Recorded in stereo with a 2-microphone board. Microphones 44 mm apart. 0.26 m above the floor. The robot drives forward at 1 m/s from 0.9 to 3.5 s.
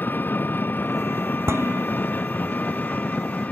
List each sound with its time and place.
0.0 s an engine running: 50° left (ahead or behind); by 3.5 s 40° left (ahead or behind)
1.5 s dishes clattering: 80° right